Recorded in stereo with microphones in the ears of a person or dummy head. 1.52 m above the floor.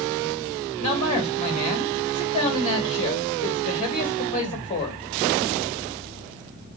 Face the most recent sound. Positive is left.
turn(degrees=35)  # may be behind; listen again after turning